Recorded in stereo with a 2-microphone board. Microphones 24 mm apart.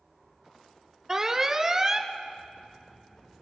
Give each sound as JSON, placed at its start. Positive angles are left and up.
{"t": 1.1, "sound": "an alarm", "side_deg": -20, "distance_m": 0.9}